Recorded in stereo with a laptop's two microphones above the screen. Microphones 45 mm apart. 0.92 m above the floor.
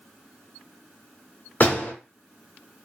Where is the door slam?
55° left (ahead or behind), 2 m.